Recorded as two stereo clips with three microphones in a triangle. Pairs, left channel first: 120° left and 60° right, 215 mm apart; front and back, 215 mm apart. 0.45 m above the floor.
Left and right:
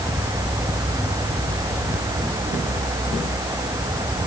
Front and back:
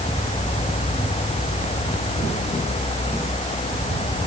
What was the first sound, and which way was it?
Only background noise.